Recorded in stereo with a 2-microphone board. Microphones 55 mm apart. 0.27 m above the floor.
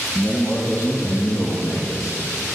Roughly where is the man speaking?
Left.